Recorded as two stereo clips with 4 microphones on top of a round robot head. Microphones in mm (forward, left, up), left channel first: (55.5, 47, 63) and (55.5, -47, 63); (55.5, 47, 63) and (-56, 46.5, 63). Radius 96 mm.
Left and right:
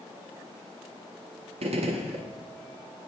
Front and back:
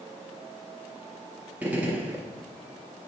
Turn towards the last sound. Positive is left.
turn(degrees=-100)